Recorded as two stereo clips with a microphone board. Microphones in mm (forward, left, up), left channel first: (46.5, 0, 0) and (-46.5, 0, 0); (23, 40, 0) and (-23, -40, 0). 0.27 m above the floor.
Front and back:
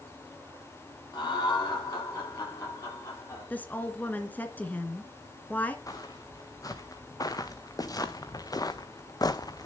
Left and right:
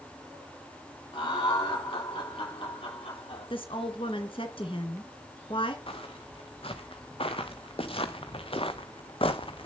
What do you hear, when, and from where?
1.1 s laughter: 40° left, 9.5 m; by 3.5 s 55° left, 9.5 m
3.5 s a woman speaking: 70° left, 2.5 m
5.9 s footsteps: 50° left, 3 m; by 9.7 s 45° left, 1.0 m